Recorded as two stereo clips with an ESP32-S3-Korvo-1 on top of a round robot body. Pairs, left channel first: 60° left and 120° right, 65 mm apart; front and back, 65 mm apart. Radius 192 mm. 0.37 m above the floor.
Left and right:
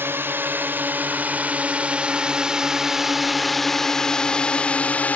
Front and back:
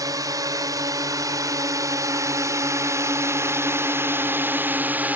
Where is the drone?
175° right; by 5.2 s 125° left.